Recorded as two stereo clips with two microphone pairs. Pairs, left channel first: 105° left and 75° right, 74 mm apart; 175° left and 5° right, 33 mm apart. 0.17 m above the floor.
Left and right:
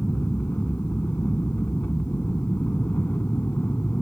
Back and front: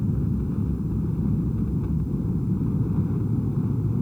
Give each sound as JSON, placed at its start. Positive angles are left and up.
{"t": 0.0, "sound": "an aircraft", "azimuth_deg": 65}